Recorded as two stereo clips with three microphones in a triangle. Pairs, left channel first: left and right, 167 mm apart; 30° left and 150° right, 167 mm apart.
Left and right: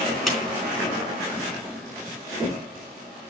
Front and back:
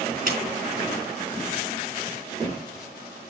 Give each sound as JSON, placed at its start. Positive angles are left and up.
{"t": 0.3, "sound": "a clap", "azimuth_deg": 180, "distance_m": 4.0}